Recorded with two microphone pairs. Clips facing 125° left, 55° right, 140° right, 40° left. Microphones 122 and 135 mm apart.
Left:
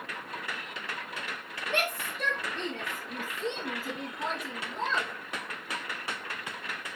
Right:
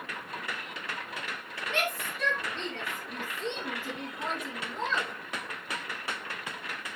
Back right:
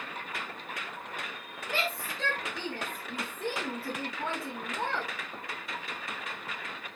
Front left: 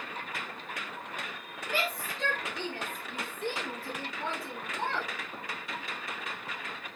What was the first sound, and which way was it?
A shout, straight behind.